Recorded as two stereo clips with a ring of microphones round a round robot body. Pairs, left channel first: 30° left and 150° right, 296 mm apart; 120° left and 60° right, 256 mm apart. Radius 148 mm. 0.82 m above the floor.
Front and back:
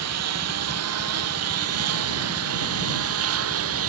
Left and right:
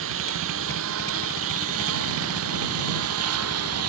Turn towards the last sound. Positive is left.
turn(degrees=-105)